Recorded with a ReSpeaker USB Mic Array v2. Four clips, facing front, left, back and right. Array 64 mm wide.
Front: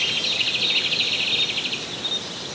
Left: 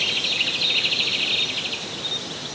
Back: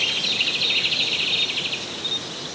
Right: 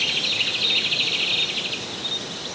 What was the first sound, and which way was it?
Only background noise.